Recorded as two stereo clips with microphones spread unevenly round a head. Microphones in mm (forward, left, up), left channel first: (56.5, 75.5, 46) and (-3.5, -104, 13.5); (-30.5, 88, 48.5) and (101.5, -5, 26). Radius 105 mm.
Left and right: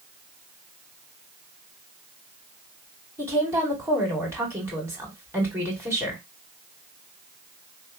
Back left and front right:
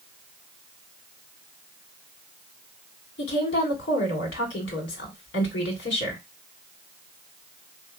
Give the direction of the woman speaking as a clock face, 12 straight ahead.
6 o'clock.